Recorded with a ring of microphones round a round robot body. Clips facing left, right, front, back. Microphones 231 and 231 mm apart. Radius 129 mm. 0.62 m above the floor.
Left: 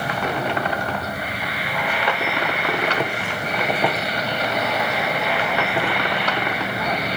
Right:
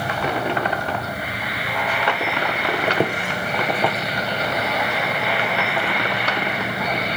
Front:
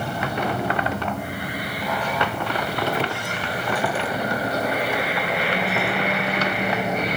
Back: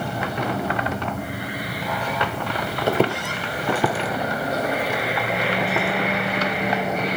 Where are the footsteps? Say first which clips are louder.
Right 3 dB, back 5 dB; 145° right, 0.8 m; by 5.9 s 155° left, 2.5 m.